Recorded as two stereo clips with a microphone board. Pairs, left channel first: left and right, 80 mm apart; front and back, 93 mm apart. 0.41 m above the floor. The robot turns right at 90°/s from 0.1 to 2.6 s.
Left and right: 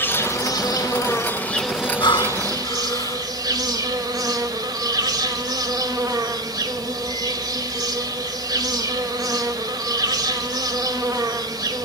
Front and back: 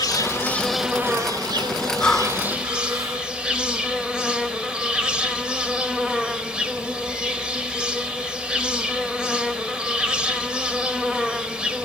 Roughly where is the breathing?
Left.